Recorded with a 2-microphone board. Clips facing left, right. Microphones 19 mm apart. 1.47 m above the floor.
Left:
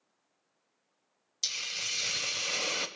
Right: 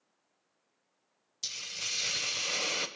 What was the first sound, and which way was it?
A hiss, 30° left (ahead or behind).